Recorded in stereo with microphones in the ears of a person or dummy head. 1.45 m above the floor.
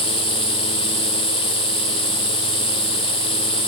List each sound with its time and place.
0.0 s an insect: 20° right (ahead or behind), 5.5 m